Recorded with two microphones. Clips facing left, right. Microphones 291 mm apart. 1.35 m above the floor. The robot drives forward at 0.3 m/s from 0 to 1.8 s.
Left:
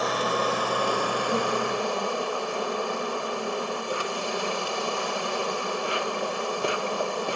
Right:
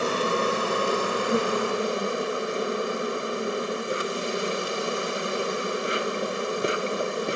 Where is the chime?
I don't hear a chime.